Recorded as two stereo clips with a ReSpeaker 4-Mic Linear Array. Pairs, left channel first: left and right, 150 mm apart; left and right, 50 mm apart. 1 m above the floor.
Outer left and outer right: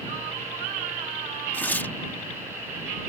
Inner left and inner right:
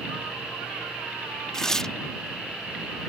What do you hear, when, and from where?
1.5 s tearing paper: 15° left (ahead or behind)